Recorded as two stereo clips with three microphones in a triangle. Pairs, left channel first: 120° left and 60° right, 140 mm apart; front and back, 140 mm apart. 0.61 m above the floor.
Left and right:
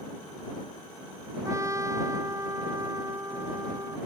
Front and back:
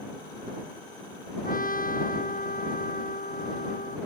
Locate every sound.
1.4 s a trumpet: 10° left